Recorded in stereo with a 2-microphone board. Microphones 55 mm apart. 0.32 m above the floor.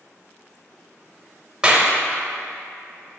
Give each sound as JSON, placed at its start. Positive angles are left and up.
{"t": 1.6, "sound": "a clap", "side_deg": -15, "distance_m": 0.9}